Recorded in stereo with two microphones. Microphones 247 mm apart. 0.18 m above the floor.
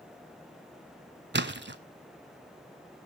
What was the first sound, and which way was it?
A splash, 45° right (ahead or behind).